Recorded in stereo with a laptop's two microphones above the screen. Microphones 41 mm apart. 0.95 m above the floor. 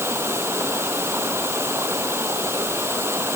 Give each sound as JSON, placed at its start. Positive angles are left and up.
{"t": 0.0, "sound": "running water", "side_deg": -85}